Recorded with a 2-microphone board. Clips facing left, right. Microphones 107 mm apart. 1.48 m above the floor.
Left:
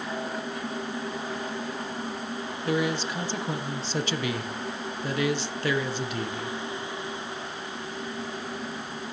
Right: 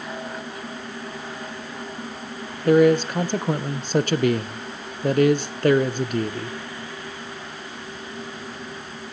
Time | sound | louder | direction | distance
2.6 | a man speaking | right 12 dB | 50° right (ahead or behind) | 0.9 m